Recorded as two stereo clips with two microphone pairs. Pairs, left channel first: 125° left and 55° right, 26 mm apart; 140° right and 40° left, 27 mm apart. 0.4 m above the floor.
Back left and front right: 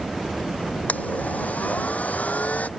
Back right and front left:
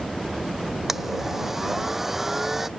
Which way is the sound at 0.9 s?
115° left.